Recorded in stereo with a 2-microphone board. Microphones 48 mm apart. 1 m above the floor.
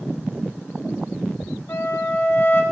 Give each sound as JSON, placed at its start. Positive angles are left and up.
{"t": 1.7, "sound": "a flute", "side_deg": 55, "distance_m": 1.5}